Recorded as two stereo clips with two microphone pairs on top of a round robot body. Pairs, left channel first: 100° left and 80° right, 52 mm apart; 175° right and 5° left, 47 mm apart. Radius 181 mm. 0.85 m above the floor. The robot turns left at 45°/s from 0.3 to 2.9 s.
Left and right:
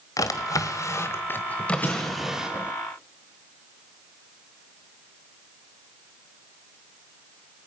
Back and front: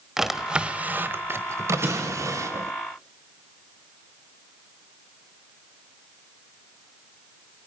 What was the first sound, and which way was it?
A drawer, 90° left.